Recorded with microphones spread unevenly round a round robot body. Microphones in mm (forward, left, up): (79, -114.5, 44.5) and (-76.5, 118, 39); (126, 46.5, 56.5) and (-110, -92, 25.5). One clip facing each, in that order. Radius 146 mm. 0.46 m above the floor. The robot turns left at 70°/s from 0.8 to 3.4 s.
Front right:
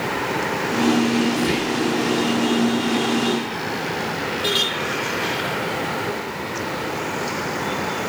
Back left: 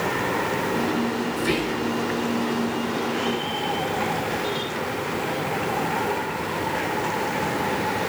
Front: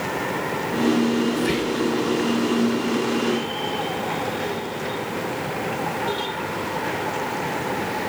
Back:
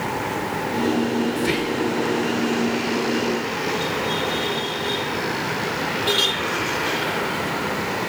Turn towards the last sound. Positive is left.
turn(degrees=95)